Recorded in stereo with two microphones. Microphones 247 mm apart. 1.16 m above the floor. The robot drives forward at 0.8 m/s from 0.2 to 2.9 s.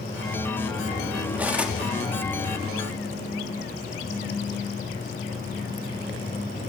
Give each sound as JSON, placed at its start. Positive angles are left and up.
{"t": 1.4, "sound": "cutlery clinking", "side_deg": -5, "distance_m": 0.9}